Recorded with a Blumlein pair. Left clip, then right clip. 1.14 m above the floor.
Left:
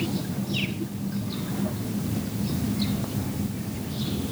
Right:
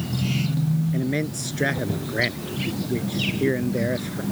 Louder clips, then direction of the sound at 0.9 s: Right 8 dB; 45° right.